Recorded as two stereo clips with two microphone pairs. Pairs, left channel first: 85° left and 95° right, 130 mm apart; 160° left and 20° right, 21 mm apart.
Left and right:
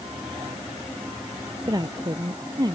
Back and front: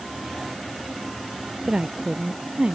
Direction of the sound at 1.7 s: 45° right.